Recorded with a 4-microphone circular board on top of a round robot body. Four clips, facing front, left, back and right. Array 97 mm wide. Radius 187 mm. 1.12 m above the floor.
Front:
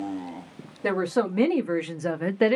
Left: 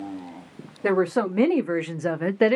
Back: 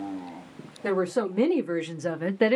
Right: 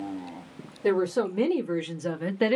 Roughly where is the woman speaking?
Left.